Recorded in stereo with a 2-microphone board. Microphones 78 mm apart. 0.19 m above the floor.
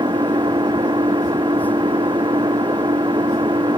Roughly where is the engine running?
Right.